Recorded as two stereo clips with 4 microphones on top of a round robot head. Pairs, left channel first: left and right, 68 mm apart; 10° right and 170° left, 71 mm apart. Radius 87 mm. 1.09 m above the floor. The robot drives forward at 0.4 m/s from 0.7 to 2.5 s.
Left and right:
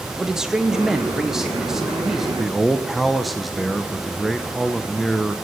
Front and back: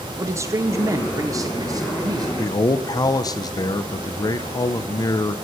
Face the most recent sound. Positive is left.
turn(degrees=0)